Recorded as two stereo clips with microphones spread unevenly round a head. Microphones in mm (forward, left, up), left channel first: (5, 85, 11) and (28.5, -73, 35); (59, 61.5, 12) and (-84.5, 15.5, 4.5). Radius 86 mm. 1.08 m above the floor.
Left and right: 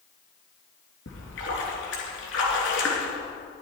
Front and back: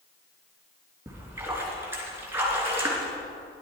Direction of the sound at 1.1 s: 125° left.